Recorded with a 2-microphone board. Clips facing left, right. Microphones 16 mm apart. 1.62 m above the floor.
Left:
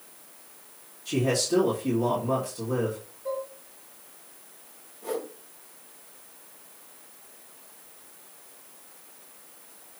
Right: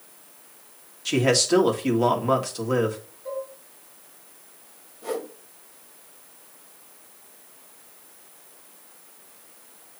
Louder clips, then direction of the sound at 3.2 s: Even; 20° left (ahead or behind).